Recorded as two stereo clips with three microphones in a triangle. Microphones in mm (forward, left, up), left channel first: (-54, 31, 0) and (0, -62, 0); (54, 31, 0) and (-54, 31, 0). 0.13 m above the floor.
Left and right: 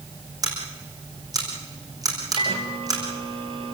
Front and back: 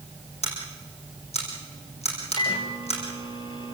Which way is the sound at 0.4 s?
5° right.